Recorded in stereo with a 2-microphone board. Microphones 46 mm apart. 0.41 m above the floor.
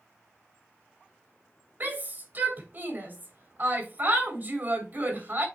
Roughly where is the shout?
Right.